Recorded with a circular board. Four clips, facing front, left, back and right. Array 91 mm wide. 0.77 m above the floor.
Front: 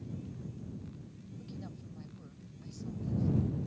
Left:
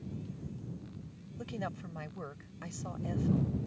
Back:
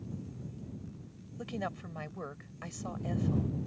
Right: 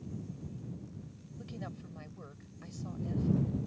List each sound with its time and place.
1.4 s a woman speaking: 155° left